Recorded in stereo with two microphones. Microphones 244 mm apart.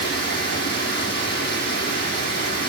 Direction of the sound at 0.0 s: 45° left (ahead or behind).